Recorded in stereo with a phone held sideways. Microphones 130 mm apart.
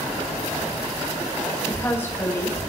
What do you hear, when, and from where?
1.7 s a woman speaking: 15° left (ahead or behind), 4.5 m